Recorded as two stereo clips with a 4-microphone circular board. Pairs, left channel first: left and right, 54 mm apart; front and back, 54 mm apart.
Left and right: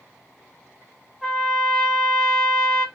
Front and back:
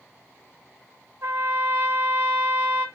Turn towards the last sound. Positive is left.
turn(degrees=175)